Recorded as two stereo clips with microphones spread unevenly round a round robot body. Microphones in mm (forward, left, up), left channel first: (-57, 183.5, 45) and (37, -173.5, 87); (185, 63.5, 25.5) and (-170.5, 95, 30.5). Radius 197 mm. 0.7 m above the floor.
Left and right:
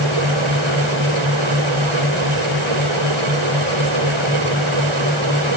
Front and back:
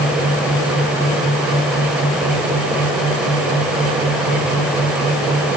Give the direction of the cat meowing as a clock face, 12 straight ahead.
I don't hear a cat meowing.